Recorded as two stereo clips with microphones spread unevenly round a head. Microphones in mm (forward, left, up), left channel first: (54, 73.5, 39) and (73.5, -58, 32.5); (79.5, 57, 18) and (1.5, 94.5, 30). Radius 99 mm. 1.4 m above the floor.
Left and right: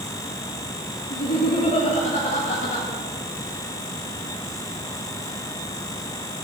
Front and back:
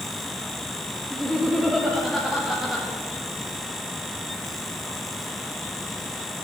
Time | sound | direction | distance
1.1 | laughter | 70° left | 2 m